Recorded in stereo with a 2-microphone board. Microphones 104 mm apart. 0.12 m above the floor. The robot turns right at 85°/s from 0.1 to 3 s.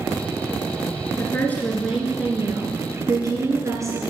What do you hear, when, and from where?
1.2 s a woman speaking: 120° left, 1.7 m; by 4.0 s 90° right, 1.7 m